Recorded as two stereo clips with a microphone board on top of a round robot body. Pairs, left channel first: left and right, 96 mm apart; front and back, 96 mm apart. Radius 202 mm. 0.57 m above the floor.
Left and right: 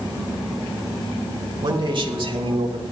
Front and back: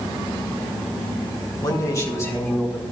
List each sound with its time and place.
1.6 s a man speaking: 50° right, 2.5 m; by 2.8 s 65° right, 4 m